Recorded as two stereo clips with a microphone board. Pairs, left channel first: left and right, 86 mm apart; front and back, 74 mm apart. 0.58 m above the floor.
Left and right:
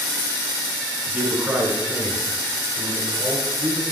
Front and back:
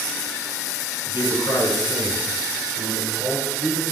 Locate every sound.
1.1 s a man speaking: 20° right, 5.5 m; by 3.8 s 30° right, 6 m